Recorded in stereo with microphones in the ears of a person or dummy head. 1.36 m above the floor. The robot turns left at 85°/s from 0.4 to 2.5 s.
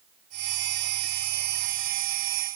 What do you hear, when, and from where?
Only background noise.